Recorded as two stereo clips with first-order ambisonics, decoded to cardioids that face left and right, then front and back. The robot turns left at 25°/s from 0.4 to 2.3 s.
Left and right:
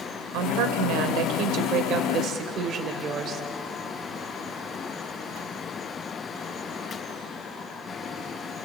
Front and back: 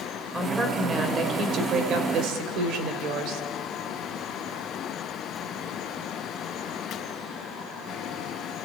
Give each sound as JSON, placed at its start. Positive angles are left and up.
{"t": 0.3, "sound": "a woman speaking", "azimuth_deg": -100, "distance_m": 2.5}